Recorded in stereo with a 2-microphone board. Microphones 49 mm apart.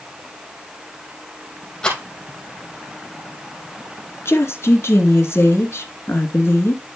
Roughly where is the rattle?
Centre.